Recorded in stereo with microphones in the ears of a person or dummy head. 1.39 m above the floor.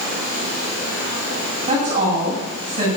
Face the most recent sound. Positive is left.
turn(degrees=-30)  # may be behind; listen again after turning